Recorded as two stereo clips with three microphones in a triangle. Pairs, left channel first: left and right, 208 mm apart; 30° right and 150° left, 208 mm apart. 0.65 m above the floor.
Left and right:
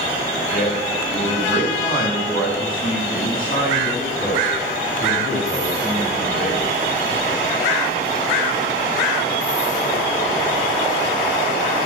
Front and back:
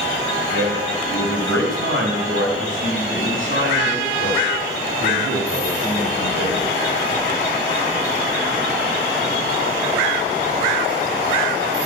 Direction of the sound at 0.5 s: 130° left.